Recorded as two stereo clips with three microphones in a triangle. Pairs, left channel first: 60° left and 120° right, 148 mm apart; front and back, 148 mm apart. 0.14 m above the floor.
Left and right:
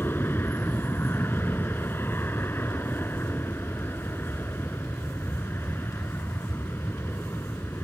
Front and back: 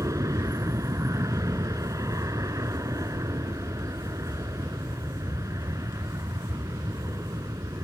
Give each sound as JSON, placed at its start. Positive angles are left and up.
{"t": 0.0, "sound": "an aircraft", "azimuth_deg": 125}